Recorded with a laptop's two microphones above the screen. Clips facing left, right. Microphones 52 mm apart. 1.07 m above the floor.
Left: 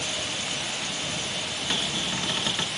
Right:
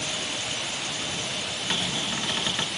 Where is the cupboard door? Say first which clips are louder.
Even; 10° right (ahead or behind).